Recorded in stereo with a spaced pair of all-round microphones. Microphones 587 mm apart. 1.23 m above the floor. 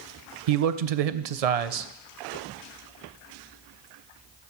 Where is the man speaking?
80° right, 0.6 m.